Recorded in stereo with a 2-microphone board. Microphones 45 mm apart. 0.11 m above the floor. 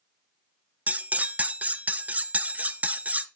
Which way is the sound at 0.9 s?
35° right (ahead or behind).